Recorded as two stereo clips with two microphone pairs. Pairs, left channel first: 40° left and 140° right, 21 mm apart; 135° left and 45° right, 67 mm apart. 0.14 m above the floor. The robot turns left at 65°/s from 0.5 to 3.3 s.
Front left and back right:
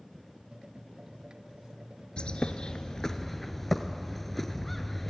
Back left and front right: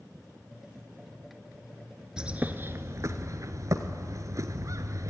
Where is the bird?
35° left, 1.1 m; by 5.1 s 40° right, 1.1 m.